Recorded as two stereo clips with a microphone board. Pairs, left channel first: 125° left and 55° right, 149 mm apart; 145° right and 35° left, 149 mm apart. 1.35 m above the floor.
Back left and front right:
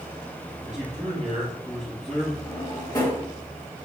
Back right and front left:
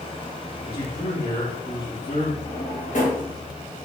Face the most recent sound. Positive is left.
turn(degrees=-175)